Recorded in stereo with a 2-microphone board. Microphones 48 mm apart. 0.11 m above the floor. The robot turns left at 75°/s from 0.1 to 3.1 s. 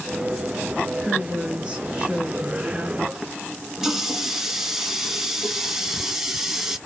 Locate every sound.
1.0 s a woman speaking: centre (ahead or behind), 1.7 m; by 3.0 s 15° right (ahead or behind), 1.7 m
3.1 s a running tap: 10° right (ahead or behind), 0.8 m